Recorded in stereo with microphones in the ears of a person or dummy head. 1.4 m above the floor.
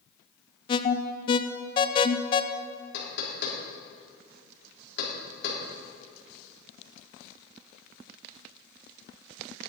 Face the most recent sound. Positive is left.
turn(degrees=75)  # may be behind; listen again after turning